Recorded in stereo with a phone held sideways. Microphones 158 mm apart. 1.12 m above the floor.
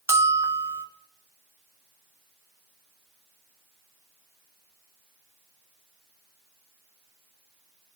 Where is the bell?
15° right (ahead or behind), 1.1 m.